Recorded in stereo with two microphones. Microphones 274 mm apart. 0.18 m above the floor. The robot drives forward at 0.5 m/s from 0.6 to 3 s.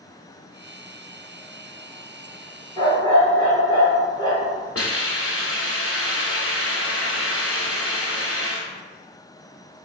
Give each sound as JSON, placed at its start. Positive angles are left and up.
{"t": 2.8, "sound": "a dog barking", "side_deg": 15, "distance_m": 1.3}
{"t": 4.8, "sound": "a hiss", "side_deg": 55, "distance_m": 1.1}